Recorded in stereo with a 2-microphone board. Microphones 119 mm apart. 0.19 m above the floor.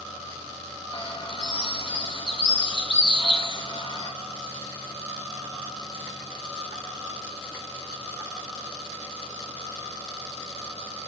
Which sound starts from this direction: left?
A bird, at 0.9 s.